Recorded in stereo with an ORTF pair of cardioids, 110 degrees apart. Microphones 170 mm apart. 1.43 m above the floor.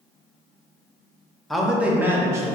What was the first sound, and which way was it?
A man speaking, straight ahead.